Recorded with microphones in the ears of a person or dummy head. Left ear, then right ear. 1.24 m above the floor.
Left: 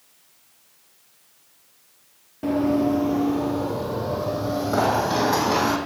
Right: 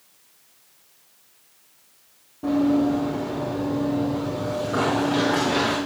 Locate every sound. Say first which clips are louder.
2.4 s running footsteps: even; 40° left (ahead or behind), 1.7 m; by 5.8 s 75° left (ahead or behind), 4.5 m